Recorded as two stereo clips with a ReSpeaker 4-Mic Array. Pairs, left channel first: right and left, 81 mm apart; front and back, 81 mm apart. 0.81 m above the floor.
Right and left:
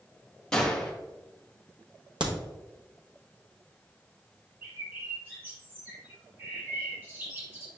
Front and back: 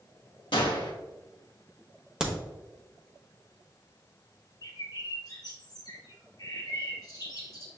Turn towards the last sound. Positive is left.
turn(degrees=25)